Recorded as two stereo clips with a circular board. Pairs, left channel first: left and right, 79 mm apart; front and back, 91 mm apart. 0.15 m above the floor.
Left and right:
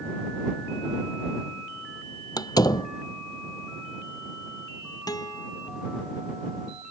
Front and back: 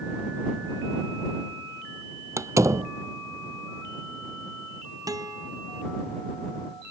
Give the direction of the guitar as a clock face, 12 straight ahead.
8 o'clock.